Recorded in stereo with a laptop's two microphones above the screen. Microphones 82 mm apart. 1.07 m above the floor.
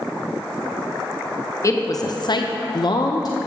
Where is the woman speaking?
35° left (ahead or behind), 0.7 m; by 3.4 s 45° left (ahead or behind), 0.7 m.